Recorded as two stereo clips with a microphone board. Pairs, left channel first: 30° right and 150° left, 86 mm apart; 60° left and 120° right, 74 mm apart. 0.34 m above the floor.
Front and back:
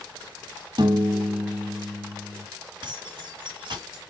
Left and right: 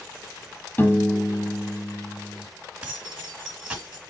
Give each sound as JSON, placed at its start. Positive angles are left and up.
{"t": 0.8, "sound": "a piano", "azimuth_deg": 125, "distance_m": 0.9}
{"t": 2.8, "sound": "keys jangling", "azimuth_deg": 170, "distance_m": 3.0}